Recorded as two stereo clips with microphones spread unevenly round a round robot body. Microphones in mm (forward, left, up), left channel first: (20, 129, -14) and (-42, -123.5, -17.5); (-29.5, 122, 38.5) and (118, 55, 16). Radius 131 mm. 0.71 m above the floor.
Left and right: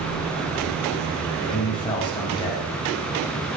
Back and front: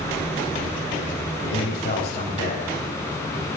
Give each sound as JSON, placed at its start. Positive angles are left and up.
{"t": 1.4, "sound": "a man speaking", "azimuth_deg": 150, "distance_m": 4.5}